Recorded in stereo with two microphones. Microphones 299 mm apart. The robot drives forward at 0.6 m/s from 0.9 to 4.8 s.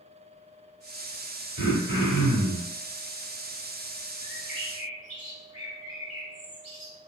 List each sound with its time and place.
1.6 s throat clearing: 40° left (ahead or behind), 1.2 m; by 2.7 s 30° left (ahead or behind), 1.7 m
4.2 s a bird: 30° left (ahead or behind), 1.0 m; by 7.0 s 25° left (ahead or behind), 1.1 m